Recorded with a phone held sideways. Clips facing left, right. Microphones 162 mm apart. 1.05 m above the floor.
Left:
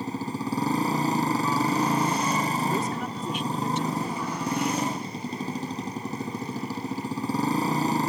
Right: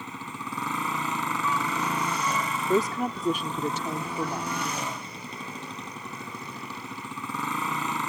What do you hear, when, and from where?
0.0 s a motorcycle: 35° left (ahead or behind)
2.7 s a woman speaking: 40° right (ahead or behind)